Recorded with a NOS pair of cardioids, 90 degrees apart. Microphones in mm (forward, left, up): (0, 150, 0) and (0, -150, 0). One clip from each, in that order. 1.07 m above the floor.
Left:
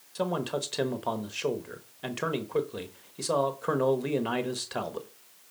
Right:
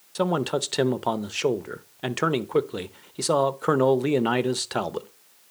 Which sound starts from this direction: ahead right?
A man speaking, at 0.1 s.